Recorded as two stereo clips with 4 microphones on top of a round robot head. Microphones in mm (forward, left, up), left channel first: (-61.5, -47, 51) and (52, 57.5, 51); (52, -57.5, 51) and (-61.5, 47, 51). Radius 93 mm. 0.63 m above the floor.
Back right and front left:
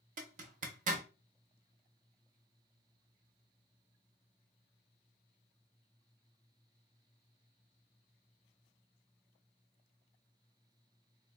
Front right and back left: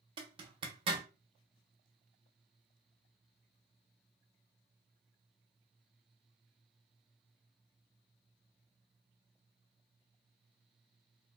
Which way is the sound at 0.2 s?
80° left.